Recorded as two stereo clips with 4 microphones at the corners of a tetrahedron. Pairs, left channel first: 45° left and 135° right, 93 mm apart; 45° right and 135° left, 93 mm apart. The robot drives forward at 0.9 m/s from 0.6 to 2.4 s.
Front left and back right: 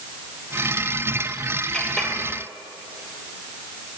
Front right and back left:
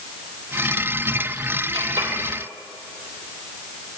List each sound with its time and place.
1.7 s a clink: 125° left, 3.5 m; by 2.1 s 130° left, 3.5 m